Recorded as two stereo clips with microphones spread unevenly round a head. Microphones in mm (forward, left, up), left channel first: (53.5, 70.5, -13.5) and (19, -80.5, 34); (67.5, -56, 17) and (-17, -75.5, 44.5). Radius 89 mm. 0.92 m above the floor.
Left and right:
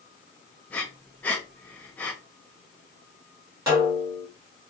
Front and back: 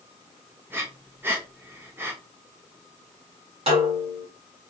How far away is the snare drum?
About 2.5 m.